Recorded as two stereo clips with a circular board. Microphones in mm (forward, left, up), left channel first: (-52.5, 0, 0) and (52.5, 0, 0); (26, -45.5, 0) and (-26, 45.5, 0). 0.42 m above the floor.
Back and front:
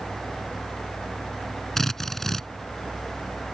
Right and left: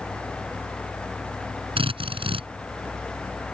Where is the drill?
90° left.